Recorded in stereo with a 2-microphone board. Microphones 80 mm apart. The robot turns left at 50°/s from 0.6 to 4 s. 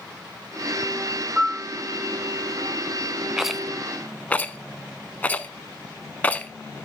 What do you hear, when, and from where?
1.4 s a piano: 5° right (ahead or behind), 6.5 m; by 1.7 s 20° right (ahead or behind), 6.5 m
3.4 s a rattle: 10° right (ahead or behind), 0.6 m; by 6.5 s 20° left (ahead or behind), 0.6 m